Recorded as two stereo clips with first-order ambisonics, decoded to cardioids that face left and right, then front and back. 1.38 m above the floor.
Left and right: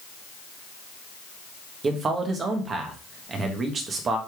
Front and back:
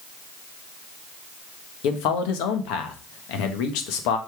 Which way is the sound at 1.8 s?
25° right.